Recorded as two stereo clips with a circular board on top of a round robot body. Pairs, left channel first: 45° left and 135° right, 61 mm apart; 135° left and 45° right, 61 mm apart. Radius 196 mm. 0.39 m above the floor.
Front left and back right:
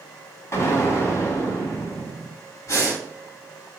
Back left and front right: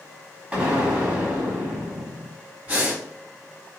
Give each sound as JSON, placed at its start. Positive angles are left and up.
{"t": 0.5, "sound": "an explosion", "azimuth_deg": 15, "distance_m": 2.0}
{"t": 2.7, "sound": "breathing", "azimuth_deg": 15, "distance_m": 2.0}